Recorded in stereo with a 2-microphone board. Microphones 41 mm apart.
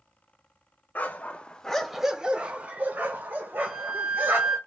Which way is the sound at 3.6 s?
20° right (ahead or behind).